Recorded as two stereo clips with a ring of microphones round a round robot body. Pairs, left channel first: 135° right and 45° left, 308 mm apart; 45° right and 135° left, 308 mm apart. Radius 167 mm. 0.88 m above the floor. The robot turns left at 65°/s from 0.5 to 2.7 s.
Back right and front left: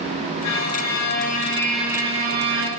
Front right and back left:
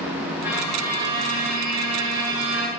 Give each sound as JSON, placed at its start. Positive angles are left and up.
{"t": 0.4, "sound": "a violin", "azimuth_deg": -140, "distance_m": 1.3}